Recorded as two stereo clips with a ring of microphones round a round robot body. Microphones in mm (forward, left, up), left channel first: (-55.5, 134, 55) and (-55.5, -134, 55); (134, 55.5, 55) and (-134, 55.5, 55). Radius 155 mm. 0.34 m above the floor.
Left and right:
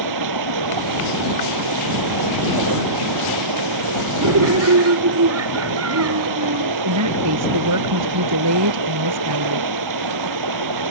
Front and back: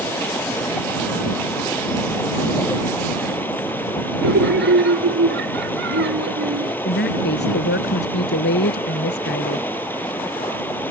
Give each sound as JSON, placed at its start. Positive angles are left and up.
{"t": 0.0, "sound": "running water", "azimuth_deg": -85}
{"t": 4.2, "sound": "laughter", "azimuth_deg": -125}
{"t": 6.8, "sound": "a woman speaking", "azimuth_deg": -55}